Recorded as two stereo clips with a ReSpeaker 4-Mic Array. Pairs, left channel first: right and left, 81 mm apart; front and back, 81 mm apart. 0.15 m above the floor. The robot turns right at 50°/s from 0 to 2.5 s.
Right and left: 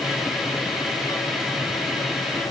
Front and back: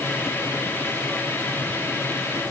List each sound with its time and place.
Only background noise.